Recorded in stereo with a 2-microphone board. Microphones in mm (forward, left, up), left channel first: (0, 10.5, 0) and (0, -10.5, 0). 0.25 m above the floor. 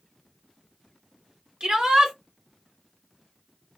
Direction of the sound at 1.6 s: 35° right (ahead or behind).